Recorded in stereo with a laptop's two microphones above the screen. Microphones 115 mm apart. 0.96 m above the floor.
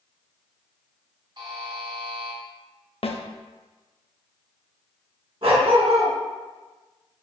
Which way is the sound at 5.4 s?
55° right (ahead or behind).